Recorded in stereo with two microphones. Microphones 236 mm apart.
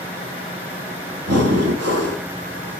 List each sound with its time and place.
1.3 s breathing: 85° right, 1.3 m